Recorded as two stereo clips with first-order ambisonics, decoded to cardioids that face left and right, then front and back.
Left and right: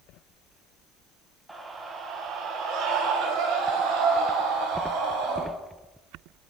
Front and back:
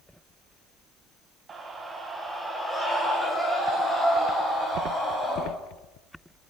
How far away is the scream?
About 1.2 m.